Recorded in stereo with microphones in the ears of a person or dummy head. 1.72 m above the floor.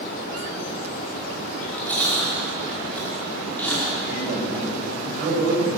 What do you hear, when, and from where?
1.5 s chewing: 10° left (ahead or behind), 4.5 m
4.1 s a man speaking: 55° right (ahead or behind), 4 m